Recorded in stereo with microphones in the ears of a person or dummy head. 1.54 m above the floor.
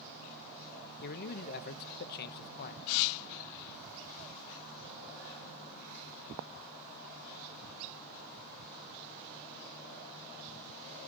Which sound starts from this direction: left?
A man speaking, at 1.0 s.